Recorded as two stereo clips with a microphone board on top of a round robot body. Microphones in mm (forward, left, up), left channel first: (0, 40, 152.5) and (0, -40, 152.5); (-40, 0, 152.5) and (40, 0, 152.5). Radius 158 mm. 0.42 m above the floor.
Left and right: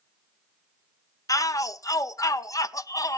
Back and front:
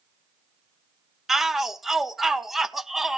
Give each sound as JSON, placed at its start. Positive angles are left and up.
{"t": 1.3, "sound": "a shout", "azimuth_deg": 85, "distance_m": 0.9}